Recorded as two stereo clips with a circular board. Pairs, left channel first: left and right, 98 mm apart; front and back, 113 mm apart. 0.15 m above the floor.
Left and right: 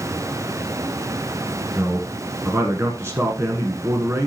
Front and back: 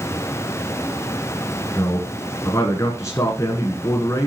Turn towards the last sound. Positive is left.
turn(degrees=-45)